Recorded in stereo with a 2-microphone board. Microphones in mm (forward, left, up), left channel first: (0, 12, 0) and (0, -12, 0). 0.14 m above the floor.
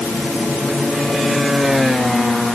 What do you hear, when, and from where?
Only background noise.